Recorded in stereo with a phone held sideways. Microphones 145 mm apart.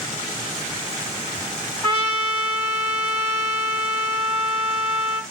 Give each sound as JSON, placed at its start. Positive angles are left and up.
{"t": 1.8, "sound": "a trumpet", "side_deg": 30, "distance_m": 4.0}